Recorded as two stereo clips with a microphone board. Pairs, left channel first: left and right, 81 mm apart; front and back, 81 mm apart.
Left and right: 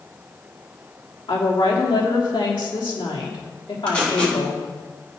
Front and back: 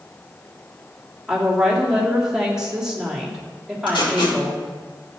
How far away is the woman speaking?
About 3 m.